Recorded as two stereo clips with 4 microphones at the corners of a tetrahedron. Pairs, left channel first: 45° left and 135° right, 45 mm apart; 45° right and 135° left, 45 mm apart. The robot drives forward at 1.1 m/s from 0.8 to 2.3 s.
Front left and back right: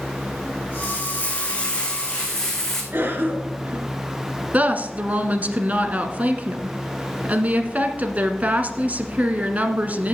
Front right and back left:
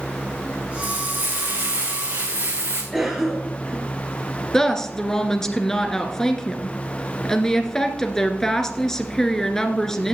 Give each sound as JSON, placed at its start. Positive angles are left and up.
{"t": 0.8, "sound": "frying", "azimuth_deg": 95, "distance_m": 3.0}
{"t": 2.9, "sound": "a cough", "azimuth_deg": -145, "distance_m": 2.5}
{"t": 4.5, "sound": "a woman speaking", "azimuth_deg": -120, "distance_m": 1.4}